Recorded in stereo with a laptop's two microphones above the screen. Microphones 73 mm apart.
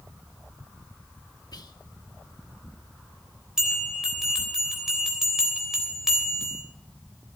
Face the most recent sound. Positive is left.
turn(degrees=-10)  # may be behind; listen again after turning